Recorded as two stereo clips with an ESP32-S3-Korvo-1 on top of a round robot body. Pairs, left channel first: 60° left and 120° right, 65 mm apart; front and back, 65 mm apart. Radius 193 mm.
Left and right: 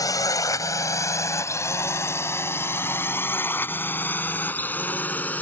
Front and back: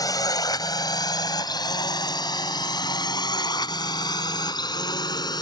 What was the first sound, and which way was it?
A drone, 30° left.